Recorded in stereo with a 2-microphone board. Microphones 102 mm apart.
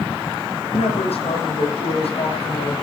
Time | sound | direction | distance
0.7 | a woman speaking | 70° left (ahead or behind) | 5.5 m